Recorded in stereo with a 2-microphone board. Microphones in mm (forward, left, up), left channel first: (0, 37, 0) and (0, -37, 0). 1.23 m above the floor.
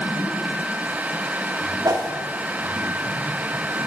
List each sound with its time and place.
1.9 s a whoosh: 60° right (ahead or behind), 0.9 m